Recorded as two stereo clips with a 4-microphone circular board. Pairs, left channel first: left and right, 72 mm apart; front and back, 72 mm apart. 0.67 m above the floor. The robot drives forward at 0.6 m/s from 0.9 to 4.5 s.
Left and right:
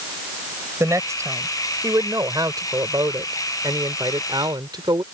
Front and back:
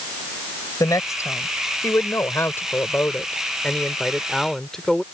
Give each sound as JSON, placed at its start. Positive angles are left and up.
{"t": 0.8, "sound": "a woman speaking", "azimuth_deg": -40}